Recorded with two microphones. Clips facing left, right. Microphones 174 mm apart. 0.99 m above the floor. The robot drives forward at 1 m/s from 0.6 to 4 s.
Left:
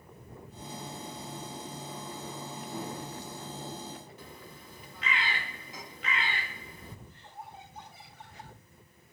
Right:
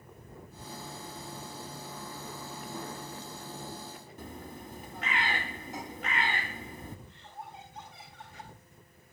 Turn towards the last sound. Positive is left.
turn(degrees=5)  # may be behind; listen again after turning